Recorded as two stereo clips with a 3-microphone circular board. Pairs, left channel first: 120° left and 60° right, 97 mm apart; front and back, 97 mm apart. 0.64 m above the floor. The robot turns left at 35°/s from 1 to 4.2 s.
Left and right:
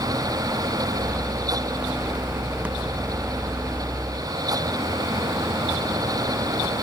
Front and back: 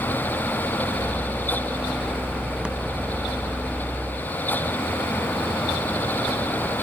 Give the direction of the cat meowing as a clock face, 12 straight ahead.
No cat meowing in this recording.